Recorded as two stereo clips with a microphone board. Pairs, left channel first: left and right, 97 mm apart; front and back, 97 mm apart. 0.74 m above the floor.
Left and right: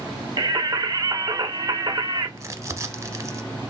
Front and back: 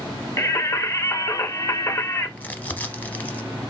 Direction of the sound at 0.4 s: 55° right.